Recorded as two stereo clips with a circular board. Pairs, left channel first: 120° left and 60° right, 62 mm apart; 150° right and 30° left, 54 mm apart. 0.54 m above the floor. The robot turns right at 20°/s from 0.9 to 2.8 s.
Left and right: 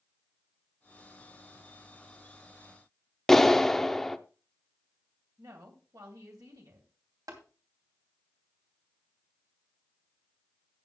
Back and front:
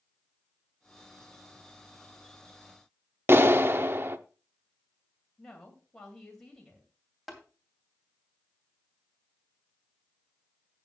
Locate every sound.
3.3 s a clap: 35° left, 0.6 m
5.4 s a woman speaking: 70° right, 2.5 m
7.3 s tapping: 60° right, 2.5 m